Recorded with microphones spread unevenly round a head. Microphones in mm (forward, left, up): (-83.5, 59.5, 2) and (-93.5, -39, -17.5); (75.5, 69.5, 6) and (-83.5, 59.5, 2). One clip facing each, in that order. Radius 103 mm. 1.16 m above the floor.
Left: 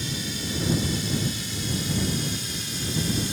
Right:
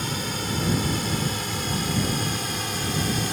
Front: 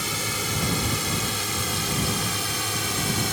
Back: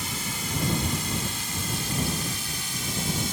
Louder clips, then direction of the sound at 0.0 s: Right 3 dB, front 3 dB; 30° right.